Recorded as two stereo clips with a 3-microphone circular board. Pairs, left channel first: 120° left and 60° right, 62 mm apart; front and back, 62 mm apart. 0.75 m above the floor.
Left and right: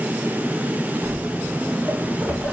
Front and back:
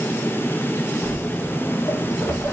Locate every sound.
1.0 s footsteps: 30° right, 2.5 m; by 2.5 s 10° left, 1.5 m